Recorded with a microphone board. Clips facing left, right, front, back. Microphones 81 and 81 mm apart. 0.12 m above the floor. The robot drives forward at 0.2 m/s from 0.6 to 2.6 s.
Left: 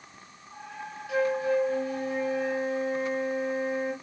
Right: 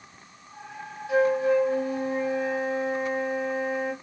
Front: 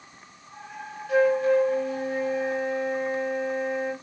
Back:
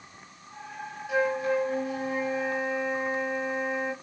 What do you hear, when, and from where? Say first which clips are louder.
1.1 s a flute: right 4 dB, front 6 dB; 110° right, 1.0 m; by 3.9 s 135° right, 1.1 m